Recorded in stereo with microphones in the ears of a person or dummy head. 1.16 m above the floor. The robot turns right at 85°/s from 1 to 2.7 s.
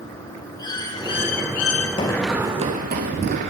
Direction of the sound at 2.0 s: 25° left (ahead or behind).